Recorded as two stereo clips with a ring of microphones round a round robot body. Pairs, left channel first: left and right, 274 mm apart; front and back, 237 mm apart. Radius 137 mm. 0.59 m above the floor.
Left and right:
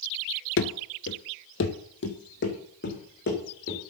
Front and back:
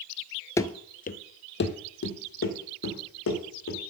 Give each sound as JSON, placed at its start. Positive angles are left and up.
{"t": 0.6, "sound": "running footsteps", "azimuth_deg": 75, "distance_m": 0.7}